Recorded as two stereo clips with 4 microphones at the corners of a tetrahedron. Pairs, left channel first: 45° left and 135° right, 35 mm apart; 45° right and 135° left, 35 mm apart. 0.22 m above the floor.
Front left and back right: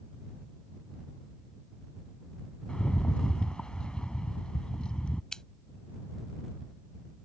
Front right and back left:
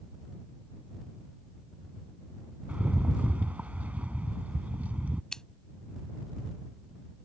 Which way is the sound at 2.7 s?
105° left.